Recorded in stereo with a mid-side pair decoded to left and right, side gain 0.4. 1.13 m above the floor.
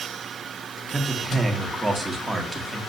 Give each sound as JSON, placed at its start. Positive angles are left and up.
{"t": 0.9, "sound": "a man speaking", "azimuth_deg": -20, "distance_m": 2.0}